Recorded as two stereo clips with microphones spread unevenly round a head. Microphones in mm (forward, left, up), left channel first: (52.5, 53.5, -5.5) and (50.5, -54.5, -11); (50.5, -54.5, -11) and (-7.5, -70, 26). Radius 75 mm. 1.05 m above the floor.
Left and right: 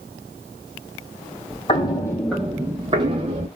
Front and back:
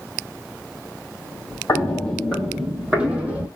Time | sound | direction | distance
1.7 | footsteps | 115° left | 1.5 m